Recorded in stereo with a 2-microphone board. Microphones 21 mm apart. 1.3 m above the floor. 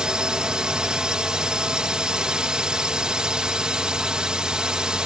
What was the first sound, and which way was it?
A drone, 50° right (ahead or behind).